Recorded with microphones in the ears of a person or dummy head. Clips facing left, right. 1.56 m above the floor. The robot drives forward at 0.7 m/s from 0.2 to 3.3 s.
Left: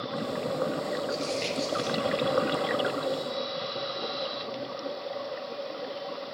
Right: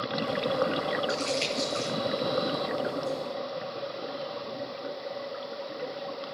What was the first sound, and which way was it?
Crumpling, 85° right.